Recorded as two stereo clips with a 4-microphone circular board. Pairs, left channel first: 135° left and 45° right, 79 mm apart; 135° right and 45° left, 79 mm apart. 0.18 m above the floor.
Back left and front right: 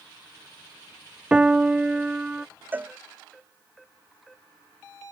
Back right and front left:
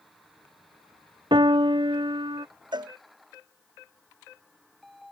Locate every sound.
1.3 s a piano: 30° left
2.7 s a cowbell: 20° left